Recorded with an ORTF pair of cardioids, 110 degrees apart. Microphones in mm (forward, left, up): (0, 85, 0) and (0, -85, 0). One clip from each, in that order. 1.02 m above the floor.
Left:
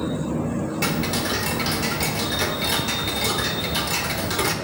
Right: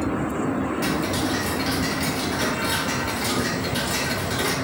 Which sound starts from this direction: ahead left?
Ticking, at 0.8 s.